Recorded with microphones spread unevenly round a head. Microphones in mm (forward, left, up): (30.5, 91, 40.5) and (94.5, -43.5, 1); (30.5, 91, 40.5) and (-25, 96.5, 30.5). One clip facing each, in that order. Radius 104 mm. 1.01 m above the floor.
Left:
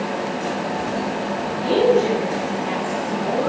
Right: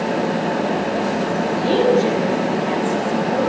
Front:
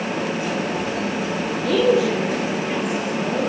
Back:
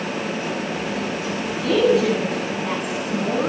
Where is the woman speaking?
160° right, 9 m.